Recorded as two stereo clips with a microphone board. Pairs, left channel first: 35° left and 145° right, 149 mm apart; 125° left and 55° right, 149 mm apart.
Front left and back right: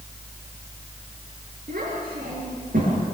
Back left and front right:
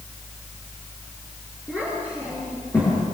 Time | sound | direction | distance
1.7 | a child speaking | 165° right | 8.5 m